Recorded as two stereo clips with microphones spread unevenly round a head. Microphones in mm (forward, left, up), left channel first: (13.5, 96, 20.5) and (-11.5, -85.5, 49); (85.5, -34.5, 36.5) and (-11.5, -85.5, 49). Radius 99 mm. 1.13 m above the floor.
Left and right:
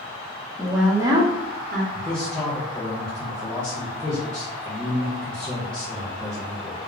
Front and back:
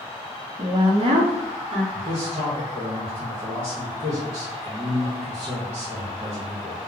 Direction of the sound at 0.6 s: 160° left.